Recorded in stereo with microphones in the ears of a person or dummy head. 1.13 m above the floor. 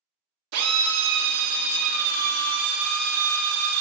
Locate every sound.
0.5 s a drill: 70° right (ahead or behind), 0.6 m